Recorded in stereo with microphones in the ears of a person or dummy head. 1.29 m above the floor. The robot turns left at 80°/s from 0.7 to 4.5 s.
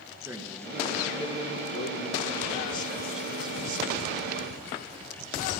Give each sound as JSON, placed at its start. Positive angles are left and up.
{"t": 0.2, "sound": "a man speaking", "azimuth_deg": -170, "distance_m": 1.3}